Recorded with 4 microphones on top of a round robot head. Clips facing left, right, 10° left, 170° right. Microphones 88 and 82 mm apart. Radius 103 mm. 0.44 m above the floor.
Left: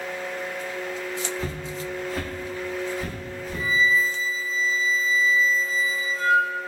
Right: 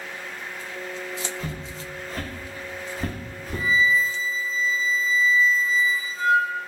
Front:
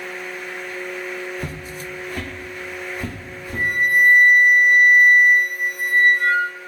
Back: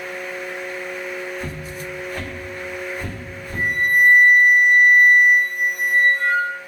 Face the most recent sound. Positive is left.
turn(degrees=-55)